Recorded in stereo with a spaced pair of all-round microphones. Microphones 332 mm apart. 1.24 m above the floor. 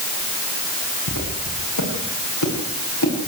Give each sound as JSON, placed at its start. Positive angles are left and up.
{"t": 1.1, "sound": "footsteps", "side_deg": 65, "distance_m": 9.0}